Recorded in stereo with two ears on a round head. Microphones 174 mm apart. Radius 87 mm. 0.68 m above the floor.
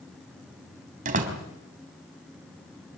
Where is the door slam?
45° right (ahead or behind), 3.5 m.